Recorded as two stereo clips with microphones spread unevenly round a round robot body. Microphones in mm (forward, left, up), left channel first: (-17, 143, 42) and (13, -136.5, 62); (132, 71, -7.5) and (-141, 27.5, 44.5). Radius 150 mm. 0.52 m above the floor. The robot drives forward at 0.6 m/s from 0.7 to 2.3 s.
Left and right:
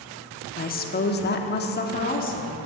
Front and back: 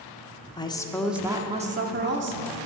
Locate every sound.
0.6 s a woman speaking: 65° left, 0.8 m; by 2.6 s 145° left, 1.1 m